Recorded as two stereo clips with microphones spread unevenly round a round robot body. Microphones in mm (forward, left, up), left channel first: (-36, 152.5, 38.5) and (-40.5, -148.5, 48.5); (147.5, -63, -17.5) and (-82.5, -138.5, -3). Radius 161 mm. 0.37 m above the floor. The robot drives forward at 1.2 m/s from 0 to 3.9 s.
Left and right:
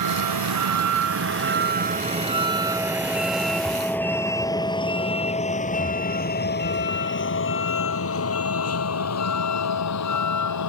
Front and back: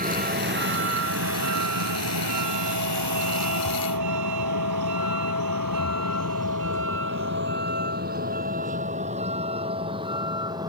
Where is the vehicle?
110° right; by 10.7 s 120° left.